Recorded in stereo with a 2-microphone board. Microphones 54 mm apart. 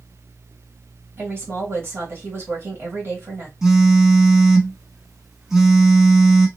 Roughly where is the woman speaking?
Right.